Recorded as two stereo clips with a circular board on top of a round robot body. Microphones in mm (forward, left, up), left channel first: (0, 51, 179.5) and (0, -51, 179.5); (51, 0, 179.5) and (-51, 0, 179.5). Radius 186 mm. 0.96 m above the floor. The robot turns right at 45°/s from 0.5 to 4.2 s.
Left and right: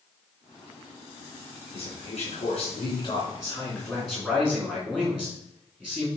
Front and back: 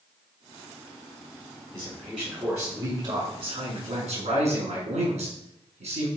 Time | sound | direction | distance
1.7 | a man speaking | 75° left | 4 m